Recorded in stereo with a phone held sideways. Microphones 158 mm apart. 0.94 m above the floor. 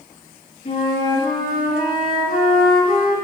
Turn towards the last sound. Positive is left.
turn(degrees=60)  # may be behind; listen again after turning